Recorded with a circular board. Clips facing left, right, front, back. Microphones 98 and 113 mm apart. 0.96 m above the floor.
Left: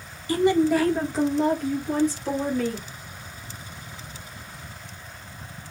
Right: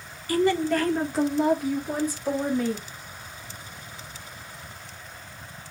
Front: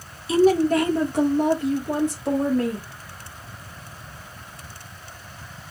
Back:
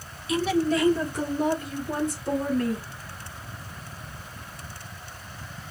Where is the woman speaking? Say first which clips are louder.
Left 3 dB, front 7 dB; 40° left, 0.8 m; by 2.9 s 15° right, 2.5 m.